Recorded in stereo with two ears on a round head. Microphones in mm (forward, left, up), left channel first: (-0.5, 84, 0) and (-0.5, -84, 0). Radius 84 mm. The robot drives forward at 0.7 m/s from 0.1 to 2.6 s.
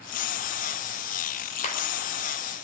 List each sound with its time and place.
1.6 s a clap: 45° left (ahead or behind), 3.5 m